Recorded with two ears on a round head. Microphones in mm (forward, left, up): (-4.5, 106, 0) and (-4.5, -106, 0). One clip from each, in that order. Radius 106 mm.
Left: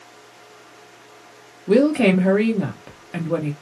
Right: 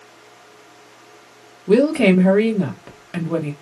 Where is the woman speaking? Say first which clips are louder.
Right 1 dB; 5° right (ahead or behind), 0.9 m.